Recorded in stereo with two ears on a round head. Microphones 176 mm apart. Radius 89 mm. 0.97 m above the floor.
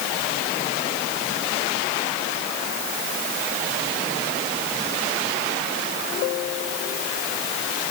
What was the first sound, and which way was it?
Only background noise.